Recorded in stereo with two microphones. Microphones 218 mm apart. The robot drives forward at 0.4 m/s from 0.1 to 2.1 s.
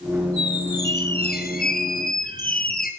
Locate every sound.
0.4 s a squeak: 50° left (ahead or behind), 3 m; by 2.9 s 40° left (ahead or behind), 3 m